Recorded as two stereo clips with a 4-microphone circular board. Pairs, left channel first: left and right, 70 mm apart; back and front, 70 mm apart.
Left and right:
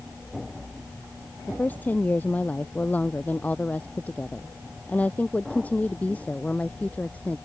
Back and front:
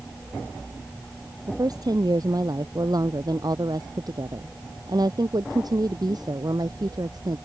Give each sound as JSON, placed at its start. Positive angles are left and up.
{"t": 1.5, "sound": "a woman speaking", "azimuth_deg": 25}